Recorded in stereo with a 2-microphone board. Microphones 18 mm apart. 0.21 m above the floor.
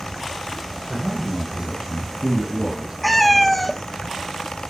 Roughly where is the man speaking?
Right.